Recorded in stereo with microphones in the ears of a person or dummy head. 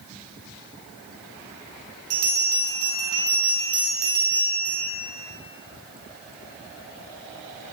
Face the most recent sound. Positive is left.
turn(degrees=-60)  # may be behind; listen again after turning